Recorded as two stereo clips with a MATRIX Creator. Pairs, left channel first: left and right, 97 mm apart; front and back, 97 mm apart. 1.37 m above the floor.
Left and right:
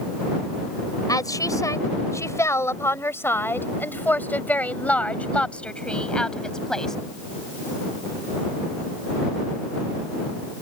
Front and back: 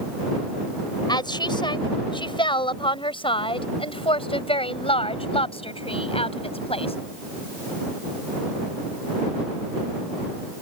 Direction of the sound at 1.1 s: 40° left.